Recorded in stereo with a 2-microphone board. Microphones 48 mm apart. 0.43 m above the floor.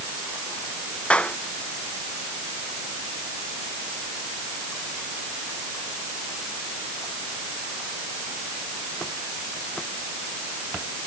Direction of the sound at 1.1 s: 25° left (ahead or behind).